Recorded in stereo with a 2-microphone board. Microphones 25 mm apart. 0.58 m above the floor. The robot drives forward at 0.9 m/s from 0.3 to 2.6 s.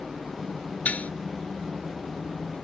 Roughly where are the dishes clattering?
Left.